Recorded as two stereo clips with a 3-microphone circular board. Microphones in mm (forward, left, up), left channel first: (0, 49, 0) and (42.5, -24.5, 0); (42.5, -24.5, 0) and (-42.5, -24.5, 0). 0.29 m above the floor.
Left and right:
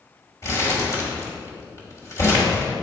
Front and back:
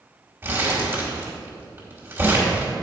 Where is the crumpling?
140° left, 1.9 m.